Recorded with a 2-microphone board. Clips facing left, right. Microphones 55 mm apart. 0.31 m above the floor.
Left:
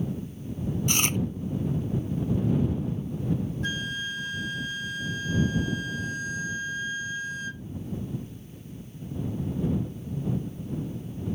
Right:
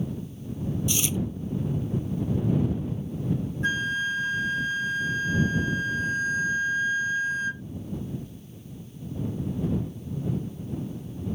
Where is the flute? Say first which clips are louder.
Right 5 dB; 30° right (ahead or behind).